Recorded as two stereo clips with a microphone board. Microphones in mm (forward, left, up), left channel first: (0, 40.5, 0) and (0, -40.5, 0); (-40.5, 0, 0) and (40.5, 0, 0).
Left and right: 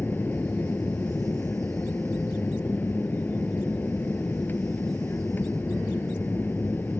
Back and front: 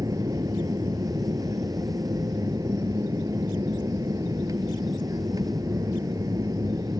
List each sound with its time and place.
0.0 s an aircraft: 30° left